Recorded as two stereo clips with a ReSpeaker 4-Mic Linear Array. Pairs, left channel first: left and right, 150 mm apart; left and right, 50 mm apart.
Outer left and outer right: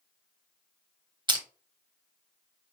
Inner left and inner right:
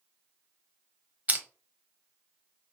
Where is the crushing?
30° right (ahead or behind), 0.9 m.